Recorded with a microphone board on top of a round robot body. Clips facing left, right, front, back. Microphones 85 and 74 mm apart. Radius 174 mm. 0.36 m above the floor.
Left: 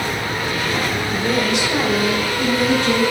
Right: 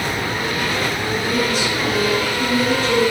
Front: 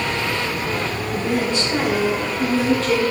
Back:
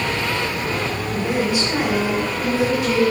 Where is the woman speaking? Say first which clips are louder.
Left 2 dB, even; 105° left, 3.5 m; by 3.1 s 100° left, 5 m.